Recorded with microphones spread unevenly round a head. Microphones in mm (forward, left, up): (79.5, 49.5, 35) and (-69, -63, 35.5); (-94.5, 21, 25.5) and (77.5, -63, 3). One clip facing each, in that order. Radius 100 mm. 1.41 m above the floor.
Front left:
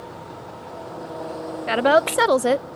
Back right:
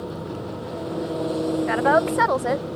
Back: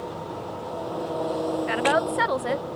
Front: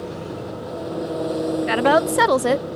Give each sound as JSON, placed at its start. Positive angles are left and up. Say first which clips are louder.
{"t": 0.0, "sound": "an engine running", "louder": "back right 7 dB, front 4 dB", "azimuth_deg": -90}
{"t": 1.7, "sound": "a woman speaking", "louder": "front left 5 dB, front 8 dB", "azimuth_deg": -10}